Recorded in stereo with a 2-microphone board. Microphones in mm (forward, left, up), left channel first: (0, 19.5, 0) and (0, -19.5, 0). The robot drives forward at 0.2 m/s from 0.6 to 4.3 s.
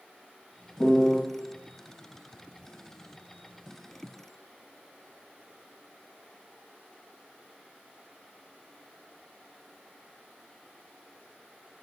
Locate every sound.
0.8 s a piano: 20° left (ahead or behind), 2.5 m